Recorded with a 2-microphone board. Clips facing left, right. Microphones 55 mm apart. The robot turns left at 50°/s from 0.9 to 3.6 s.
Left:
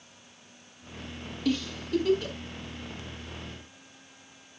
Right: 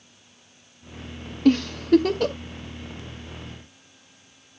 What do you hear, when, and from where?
1.4 s a giggle: 55° right (ahead or behind), 0.8 m; by 2.4 s 80° right, 0.8 m